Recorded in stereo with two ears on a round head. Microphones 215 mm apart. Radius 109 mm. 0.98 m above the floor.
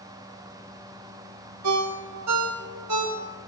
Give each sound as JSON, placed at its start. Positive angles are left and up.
{"t": 1.6, "sound": "a ringtone", "side_deg": -80, "distance_m": 1.9}